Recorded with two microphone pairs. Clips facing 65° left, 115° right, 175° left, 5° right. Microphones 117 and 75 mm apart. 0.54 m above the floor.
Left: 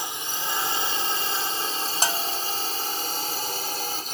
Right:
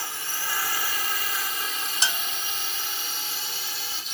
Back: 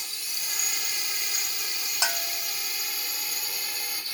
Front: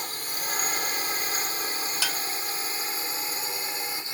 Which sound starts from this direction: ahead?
A drone, at 0.0 s.